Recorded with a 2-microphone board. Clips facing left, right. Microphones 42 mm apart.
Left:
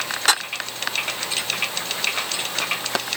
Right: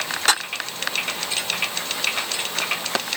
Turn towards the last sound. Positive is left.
No sound to turn to.